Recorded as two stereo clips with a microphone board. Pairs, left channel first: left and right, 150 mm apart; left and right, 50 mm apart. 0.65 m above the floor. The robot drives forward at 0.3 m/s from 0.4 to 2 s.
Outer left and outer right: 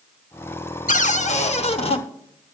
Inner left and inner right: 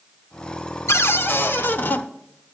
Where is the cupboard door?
60° left (ahead or behind), 0.6 m; by 2.0 s 40° left (ahead or behind), 0.8 m.